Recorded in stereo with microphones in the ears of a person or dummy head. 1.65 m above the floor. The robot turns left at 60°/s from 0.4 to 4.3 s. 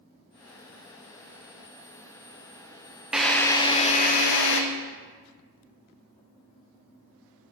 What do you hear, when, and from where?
3.1 s a drill: 175° right, 0.8 m; by 4.6 s 115° left, 0.8 m